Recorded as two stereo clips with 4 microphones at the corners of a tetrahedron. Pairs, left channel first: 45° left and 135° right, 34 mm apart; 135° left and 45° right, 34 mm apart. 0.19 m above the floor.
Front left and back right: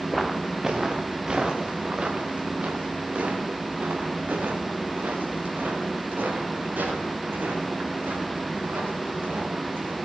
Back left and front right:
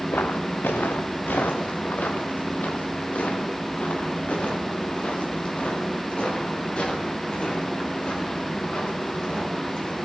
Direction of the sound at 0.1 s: 135° left.